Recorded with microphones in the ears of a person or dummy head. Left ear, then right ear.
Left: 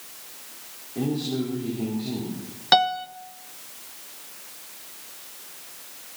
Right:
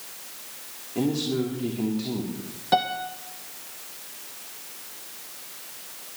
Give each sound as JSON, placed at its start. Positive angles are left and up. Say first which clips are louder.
{"t": 0.9, "sound": "a man speaking", "louder": "right 2 dB", "side_deg": -85, "distance_m": 2.5}
{"t": 2.7, "sound": "a piano", "louder": "left 4 dB", "side_deg": 45, "distance_m": 0.8}